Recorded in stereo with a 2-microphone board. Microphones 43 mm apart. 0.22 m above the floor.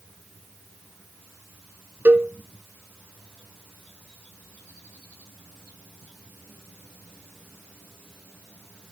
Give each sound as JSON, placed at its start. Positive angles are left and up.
{"t": 2.0, "sound": "a cowbell", "side_deg": -50, "distance_m": 0.8}